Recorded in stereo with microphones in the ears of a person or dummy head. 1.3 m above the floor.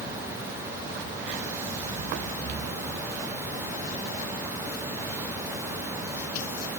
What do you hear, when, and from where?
Only background noise.